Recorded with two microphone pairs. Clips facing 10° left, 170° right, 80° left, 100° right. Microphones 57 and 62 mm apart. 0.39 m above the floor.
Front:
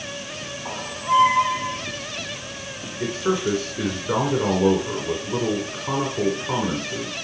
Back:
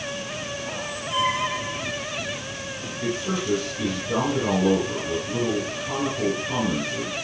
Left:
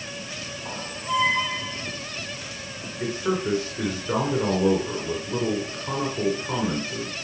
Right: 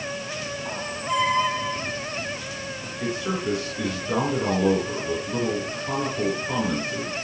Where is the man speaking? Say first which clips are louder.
Front 4 dB, left 2 dB; 10° left, 4.5 m.